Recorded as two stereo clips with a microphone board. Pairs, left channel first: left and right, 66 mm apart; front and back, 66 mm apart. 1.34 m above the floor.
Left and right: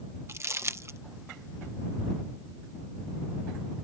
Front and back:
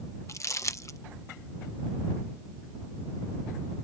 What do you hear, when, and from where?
0.3 s crumpling: 40° right